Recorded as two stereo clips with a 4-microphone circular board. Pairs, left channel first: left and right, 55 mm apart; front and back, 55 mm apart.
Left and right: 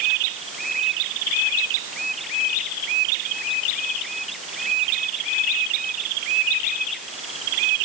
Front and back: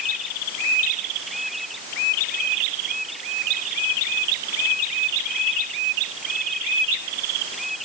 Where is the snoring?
I don't hear snoring.